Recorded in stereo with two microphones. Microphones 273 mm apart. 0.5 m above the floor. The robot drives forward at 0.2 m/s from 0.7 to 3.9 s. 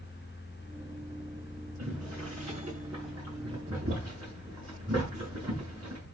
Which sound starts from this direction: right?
Boiling, at 1.8 s.